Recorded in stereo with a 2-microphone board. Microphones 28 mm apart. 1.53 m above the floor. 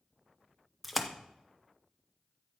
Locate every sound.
0.8 s a splash: 5° right (ahead or behind), 0.7 m